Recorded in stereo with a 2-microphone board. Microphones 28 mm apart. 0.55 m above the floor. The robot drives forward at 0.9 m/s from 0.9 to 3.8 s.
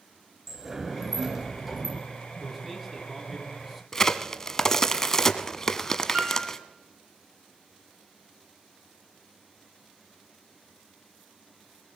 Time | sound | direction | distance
0.5 | a sliding door | 15° right (ahead or behind) | 2.5 m
2.4 | a man speaking | 5° right (ahead or behind) | 5 m
3.9 | a crack | 20° left (ahead or behind) | 1.0 m
6.1 | a piano | 50° right (ahead or behind) | 5 m